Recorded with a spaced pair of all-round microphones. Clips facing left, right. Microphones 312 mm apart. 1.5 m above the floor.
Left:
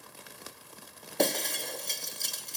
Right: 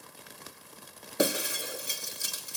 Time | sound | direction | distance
1.2 | breaking glass | 10° right (ahead or behind) | 0.9 m